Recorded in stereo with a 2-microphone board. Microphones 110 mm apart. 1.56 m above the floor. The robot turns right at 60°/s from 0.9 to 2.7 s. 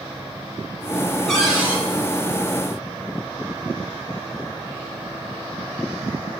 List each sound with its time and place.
1.3 s a cupboard door: 175° left, 3 m; by 1.8 s 155° right, 3 m